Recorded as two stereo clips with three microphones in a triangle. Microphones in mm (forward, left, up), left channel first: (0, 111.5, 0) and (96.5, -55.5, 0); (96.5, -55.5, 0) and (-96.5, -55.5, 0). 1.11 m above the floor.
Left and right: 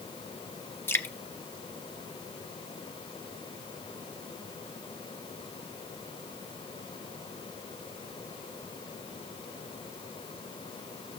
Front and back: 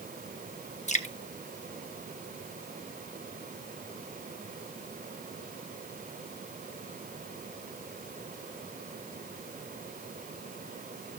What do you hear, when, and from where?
0.9 s dripping: 40° left, 1.0 m